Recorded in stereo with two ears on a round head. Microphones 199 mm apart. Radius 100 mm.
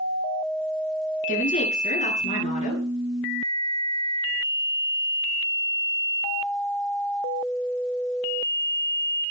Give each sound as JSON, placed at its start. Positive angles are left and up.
{"t": 1.3, "sound": "a woman speaking", "side_deg": 35, "distance_m": 9.5}